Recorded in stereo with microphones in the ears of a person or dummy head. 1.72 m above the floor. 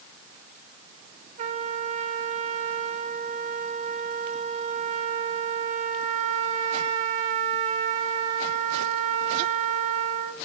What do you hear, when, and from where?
1.4 s a trumpet: 45° right (ahead or behind), 2.5 m